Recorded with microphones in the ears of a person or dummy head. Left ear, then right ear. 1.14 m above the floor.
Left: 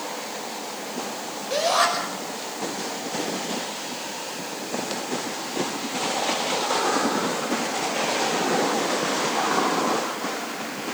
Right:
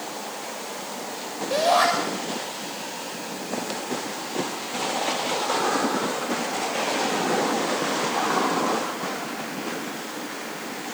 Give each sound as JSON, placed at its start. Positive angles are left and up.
{"t": 1.5, "sound": "a shout", "side_deg": -10, "distance_m": 5.5}